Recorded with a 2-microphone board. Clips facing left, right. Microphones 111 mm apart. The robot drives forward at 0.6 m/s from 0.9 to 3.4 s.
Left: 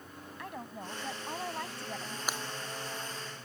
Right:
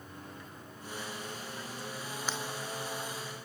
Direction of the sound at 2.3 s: 15° left (ahead or behind).